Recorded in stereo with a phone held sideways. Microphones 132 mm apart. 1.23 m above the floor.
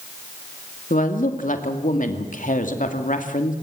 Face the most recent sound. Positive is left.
turn(degrees=85)